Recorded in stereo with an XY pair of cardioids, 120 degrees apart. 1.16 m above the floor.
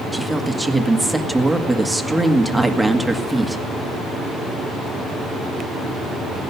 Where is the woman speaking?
5° right, 1.8 m.